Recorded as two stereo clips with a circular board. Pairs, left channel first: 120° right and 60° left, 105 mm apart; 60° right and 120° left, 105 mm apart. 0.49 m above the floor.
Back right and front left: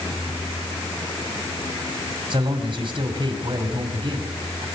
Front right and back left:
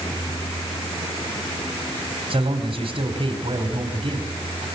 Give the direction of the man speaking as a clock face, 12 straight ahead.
9 o'clock.